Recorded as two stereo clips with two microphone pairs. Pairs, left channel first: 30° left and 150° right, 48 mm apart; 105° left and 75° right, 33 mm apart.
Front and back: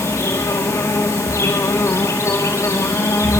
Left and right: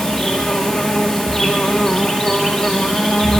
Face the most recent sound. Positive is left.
turn(degrees=45)